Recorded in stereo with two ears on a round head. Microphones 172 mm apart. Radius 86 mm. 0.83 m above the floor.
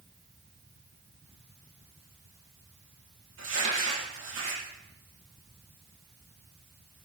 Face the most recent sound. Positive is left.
turn(degrees=-70)  # may be behind; listen again after turning